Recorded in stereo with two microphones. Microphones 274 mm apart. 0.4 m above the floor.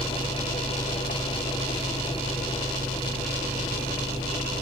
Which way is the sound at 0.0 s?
10° right (ahead or behind).